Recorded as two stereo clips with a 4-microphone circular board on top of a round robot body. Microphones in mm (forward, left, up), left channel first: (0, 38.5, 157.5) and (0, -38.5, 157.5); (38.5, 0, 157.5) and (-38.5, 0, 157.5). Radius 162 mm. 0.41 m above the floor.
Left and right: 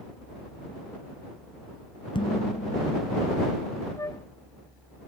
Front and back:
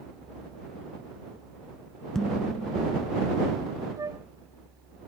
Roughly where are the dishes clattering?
Left.